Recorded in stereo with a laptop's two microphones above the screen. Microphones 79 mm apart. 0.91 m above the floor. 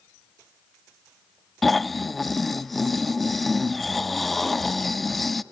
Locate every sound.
1.6 s snoring: centre (ahead or behind), 0.8 m